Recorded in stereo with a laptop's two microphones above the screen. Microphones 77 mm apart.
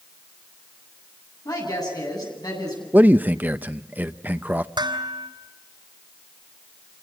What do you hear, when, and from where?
1.4 s a woman speaking: 50° left (ahead or behind), 9 m
2.9 s a man speaking: 20° right (ahead or behind), 0.7 m
4.8 s dishes clattering: 75° right (ahead or behind), 3.5 m